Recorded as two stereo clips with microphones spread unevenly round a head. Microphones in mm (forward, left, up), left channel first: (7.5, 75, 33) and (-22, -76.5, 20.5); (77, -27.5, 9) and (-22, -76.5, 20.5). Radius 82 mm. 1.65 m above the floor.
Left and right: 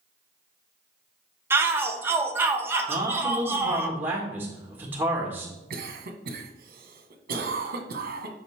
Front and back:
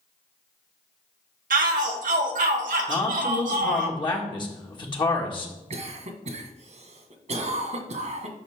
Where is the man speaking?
20° right, 1.9 m.